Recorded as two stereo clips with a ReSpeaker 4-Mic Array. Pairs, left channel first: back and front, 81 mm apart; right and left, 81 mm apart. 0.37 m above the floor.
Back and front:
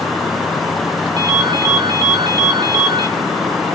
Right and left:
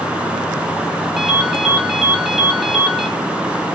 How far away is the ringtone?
About 1.7 m.